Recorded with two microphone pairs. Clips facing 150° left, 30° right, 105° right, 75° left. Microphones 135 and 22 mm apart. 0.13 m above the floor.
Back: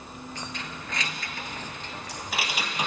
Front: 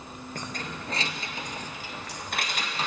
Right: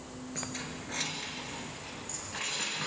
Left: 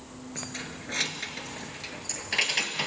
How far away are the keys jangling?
About 1.9 m.